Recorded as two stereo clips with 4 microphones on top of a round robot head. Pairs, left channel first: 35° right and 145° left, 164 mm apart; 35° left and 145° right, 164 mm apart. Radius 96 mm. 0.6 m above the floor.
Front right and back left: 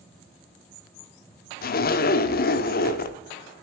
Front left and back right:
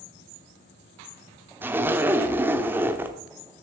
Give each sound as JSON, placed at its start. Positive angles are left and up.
{"t": 1.6, "sound": "a zipper", "azimuth_deg": -65, "distance_m": 0.8}